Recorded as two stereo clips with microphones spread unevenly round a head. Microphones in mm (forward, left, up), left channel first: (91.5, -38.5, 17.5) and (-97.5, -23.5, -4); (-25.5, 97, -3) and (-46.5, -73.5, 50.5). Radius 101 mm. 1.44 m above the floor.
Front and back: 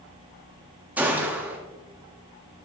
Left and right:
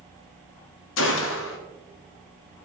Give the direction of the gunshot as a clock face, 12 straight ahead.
9 o'clock.